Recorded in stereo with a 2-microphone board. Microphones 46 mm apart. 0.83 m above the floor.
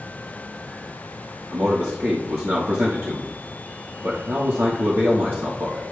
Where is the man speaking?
65° right (ahead or behind), 1.2 m.